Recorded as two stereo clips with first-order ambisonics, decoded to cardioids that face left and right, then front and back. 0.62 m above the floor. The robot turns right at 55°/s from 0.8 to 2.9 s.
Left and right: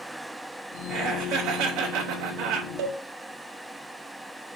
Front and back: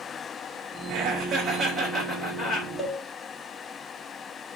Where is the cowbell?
85° right, 1.3 m; by 3.0 s 80° right, 1.3 m.